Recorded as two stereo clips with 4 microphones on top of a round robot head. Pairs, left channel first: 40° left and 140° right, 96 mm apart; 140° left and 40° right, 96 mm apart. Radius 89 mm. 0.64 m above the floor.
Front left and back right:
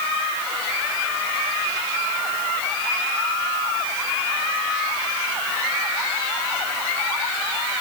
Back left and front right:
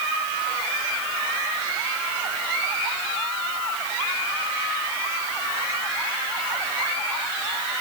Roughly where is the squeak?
No squeak in this recording.